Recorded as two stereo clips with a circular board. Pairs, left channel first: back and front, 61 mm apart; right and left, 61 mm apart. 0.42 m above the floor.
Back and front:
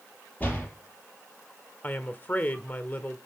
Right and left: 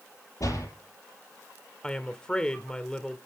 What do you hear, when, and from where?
0.4 s a door slam: 115° right, 6.5 m
1.8 s a woman speaking: 155° right, 1.2 m